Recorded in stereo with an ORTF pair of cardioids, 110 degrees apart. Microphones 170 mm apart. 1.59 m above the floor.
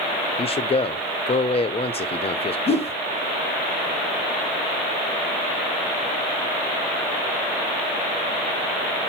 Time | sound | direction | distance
0.4 | a man speaking | 35° left | 0.9 m
2.7 | a whoosh | 35° left | 0.9 m